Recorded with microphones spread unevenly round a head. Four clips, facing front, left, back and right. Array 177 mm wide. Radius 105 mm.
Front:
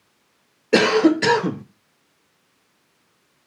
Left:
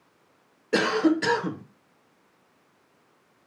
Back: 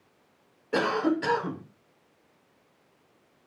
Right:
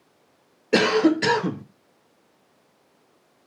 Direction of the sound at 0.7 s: 10° right.